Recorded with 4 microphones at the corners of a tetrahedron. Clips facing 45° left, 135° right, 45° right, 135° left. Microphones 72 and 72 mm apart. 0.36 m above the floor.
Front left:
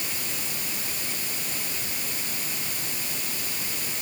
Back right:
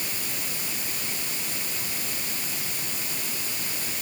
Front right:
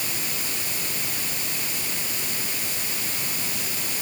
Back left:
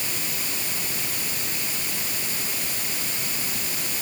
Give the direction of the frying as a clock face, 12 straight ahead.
No frying in this recording.